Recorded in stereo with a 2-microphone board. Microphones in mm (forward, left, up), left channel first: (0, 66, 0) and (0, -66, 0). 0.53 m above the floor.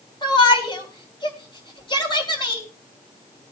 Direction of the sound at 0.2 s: 35° left (ahead or behind).